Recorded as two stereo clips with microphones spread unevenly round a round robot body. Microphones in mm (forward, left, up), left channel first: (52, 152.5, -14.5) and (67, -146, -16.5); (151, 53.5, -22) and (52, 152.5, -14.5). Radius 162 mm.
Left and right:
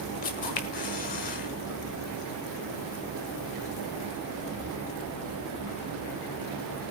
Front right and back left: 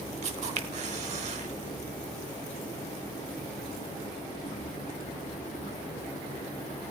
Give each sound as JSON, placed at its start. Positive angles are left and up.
{"t": 0.2, "sound": "a camera shutter", "azimuth_deg": 150, "distance_m": 1.3}